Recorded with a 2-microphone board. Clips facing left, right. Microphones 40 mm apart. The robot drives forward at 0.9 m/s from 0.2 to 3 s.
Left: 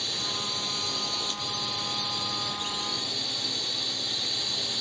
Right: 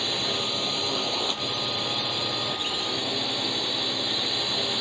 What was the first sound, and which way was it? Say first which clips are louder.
A drone: right 5 dB; 35° right (ahead or behind).